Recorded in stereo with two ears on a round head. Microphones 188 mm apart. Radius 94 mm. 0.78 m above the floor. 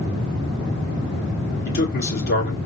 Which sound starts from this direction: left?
A man speaking, at 1.6 s.